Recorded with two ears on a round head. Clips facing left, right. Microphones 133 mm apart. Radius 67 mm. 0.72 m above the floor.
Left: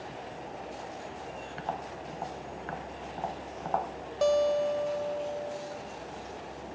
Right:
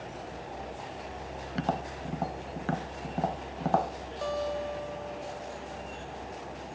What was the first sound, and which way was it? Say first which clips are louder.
Tapping: right 6 dB; 50° right (ahead or behind).